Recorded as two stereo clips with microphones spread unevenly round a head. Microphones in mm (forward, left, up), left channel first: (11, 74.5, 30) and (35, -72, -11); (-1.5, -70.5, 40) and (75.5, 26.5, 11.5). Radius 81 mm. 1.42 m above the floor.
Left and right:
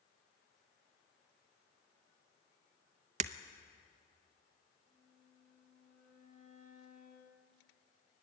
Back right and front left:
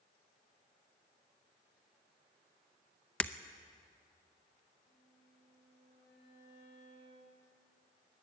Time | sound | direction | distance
3.2 | breaking glass | 95° right | 0.6 m
4.9 | a violin | 165° right | 6.5 m